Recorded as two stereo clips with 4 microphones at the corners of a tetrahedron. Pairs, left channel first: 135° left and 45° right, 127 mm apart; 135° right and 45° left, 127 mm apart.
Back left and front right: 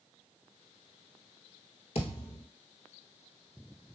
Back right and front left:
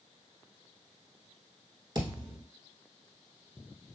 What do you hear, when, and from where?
1.9 s a thud: 100° left, 1.1 m